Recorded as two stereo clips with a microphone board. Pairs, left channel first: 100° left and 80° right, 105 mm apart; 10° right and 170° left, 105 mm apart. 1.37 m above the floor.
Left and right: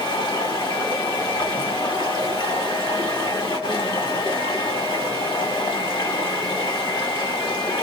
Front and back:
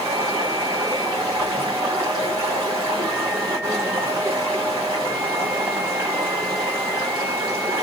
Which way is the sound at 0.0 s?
120° left.